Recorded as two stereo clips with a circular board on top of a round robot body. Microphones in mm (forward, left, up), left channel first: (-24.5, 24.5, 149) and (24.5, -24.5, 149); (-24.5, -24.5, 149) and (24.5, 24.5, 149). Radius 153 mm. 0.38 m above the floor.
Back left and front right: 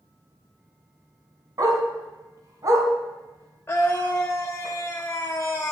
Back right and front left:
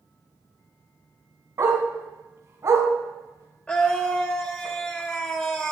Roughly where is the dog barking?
Ahead.